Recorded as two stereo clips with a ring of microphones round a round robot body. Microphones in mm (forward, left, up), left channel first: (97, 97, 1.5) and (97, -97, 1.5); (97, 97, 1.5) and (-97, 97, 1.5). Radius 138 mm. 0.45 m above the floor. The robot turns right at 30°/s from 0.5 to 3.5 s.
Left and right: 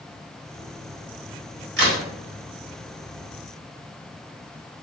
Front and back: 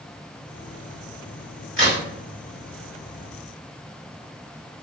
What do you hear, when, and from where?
1.8 s a crack: 110° right, 1.2 m; by 2.0 s 105° right, 1.2 m